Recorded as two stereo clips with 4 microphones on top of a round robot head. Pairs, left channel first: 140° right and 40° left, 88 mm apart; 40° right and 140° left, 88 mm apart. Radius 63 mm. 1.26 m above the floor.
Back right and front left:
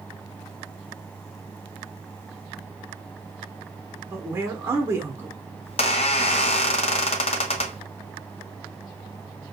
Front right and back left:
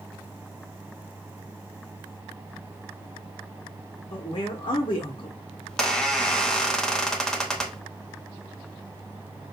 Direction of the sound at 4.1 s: 20° right.